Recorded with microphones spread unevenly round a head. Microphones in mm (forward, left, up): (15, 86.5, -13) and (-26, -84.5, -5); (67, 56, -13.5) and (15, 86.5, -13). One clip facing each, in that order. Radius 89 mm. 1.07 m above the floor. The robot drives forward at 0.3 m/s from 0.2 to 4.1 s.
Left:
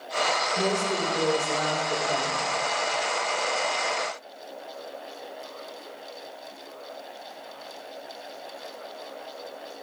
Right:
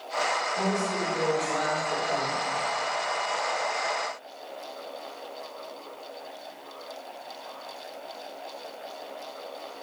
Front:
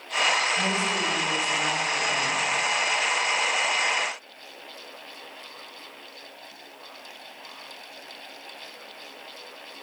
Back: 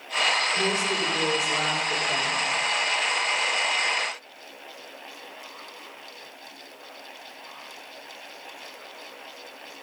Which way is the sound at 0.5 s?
135° left.